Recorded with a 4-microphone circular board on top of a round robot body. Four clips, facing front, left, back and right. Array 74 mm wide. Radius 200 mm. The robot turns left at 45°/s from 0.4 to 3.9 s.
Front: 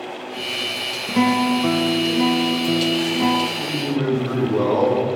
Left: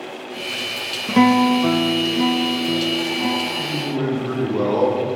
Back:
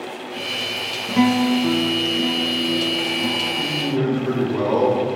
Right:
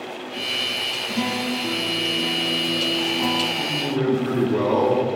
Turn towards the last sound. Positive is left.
turn(degrees=-120)